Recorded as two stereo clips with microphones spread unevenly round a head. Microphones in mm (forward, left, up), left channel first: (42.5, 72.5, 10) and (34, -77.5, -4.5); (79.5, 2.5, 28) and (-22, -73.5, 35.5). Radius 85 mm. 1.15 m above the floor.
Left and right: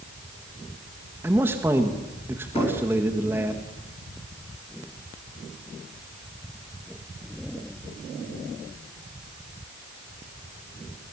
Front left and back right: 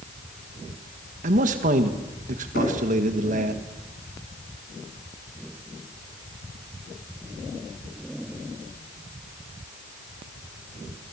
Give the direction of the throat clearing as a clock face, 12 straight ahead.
No throat clearing in this recording.